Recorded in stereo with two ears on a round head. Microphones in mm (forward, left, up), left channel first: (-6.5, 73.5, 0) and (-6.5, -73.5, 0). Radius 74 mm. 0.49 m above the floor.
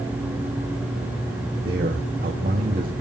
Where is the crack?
I don't hear a crack.